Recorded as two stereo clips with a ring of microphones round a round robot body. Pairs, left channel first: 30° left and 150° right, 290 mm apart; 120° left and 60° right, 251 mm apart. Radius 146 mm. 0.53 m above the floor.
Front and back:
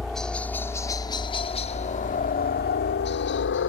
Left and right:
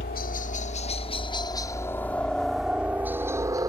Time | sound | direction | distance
0.0 | a helicopter | 120° left | ?